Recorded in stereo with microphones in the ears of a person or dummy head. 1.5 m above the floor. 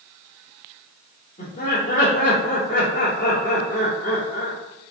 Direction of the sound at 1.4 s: 40° left (ahead or behind).